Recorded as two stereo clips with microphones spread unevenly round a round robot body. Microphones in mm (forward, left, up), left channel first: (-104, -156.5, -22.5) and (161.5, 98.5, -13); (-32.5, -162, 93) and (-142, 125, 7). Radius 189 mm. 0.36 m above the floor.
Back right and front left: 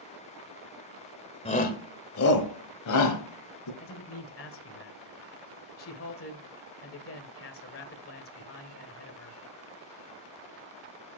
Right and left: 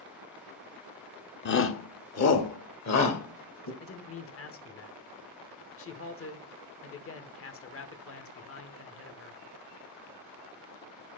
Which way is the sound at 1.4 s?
100° right.